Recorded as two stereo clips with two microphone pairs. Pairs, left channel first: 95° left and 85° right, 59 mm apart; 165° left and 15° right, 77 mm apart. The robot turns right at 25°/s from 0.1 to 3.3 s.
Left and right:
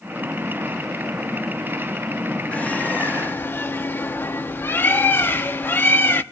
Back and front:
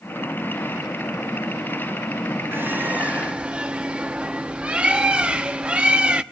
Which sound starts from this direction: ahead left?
A bird, at 2.5 s.